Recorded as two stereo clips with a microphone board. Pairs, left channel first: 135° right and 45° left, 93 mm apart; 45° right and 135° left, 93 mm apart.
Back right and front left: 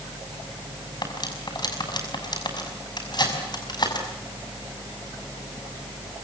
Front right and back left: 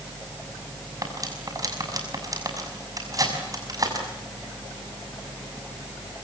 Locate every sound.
1.0 s cutlery clinking: 175° right, 6 m